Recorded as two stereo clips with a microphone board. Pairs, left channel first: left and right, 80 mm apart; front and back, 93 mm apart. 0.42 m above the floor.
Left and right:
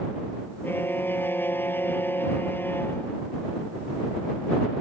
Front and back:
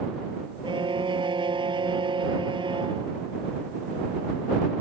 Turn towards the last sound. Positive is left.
turn(degrees=155)